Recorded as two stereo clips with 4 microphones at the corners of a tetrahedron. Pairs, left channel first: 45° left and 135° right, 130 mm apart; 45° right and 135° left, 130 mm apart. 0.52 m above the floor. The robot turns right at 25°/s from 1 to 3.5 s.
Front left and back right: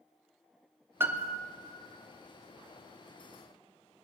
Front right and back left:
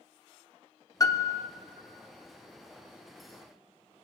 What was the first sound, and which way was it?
A piano, 75° right.